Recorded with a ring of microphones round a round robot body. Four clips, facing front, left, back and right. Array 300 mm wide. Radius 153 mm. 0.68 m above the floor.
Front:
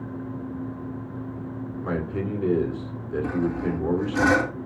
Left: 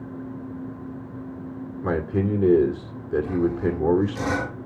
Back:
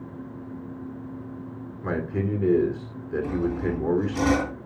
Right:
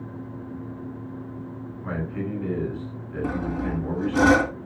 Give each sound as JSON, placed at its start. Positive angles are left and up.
{"t": 1.8, "sound": "a man speaking", "azimuth_deg": 95, "distance_m": 2.5}
{"t": 3.2, "sound": "sawing", "azimuth_deg": -70, "distance_m": 2.5}